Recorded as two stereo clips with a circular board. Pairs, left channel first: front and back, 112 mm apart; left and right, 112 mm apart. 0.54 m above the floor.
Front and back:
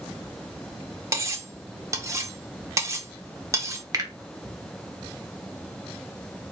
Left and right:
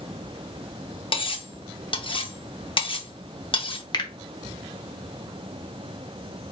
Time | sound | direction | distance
1.1 | cutlery clinking | 120° left | 0.6 m
3.9 | a finger snap | 130° left | 0.9 m